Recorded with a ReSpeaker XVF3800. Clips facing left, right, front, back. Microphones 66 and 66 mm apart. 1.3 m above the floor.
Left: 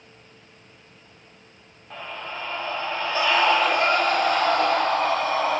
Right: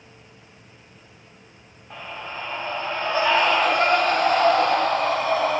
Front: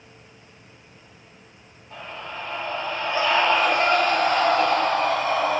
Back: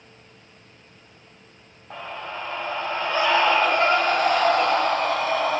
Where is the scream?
175° right, 1.9 m; by 5.6 s 100° right, 4 m.